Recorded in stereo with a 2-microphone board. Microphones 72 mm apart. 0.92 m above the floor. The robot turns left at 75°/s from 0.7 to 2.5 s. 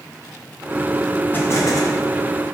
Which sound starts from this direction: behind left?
An explosion, at 1.3 s.